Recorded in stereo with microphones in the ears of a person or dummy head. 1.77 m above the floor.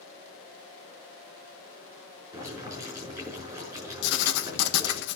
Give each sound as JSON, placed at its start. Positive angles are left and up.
{"t": 2.3, "sound": "boiling", "side_deg": -20, "distance_m": 6.0}
{"t": 4.0, "sound": "writing", "side_deg": 70, "distance_m": 1.1}